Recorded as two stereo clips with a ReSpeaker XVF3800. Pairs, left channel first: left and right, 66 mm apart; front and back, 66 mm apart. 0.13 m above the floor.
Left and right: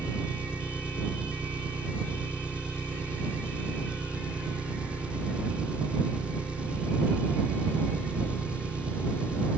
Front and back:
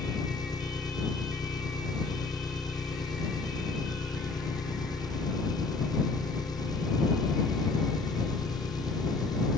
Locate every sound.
0.0 s an engine running: 15° right